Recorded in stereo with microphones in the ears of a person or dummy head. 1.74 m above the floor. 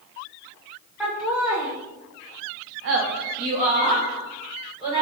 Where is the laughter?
5° right (ahead or behind), 1.6 m; by 5.0 s 25° right (ahead or behind), 2.0 m.